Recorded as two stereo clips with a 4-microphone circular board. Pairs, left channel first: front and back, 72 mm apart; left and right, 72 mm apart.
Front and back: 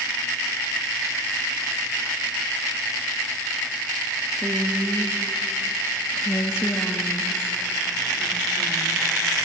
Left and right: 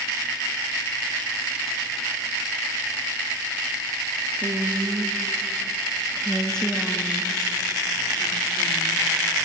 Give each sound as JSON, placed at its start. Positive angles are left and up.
{"t": 4.4, "sound": "a woman speaking", "azimuth_deg": -115, "distance_m": 1.3}